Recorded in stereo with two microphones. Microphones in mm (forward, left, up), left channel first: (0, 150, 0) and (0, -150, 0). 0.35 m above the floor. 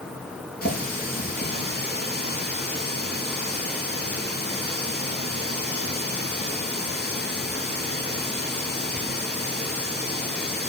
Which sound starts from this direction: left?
A running tap, at 0.6 s.